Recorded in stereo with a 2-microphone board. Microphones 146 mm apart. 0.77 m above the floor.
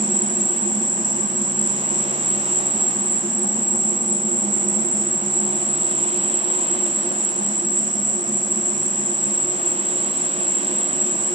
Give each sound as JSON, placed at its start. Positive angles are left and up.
{"t": 0.0, "sound": "an insect", "side_deg": -60, "distance_m": 2.5}